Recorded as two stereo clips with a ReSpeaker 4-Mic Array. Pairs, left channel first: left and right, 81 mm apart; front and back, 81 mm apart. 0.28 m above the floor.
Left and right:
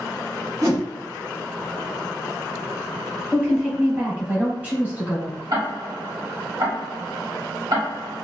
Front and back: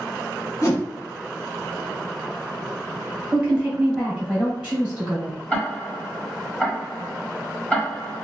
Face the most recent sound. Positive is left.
turn(degrees=-75)